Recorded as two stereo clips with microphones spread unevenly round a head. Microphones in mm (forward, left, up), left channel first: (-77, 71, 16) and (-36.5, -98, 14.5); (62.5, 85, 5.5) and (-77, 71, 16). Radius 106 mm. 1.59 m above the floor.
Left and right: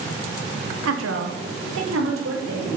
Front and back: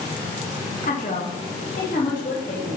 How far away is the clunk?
I don't hear a clunk.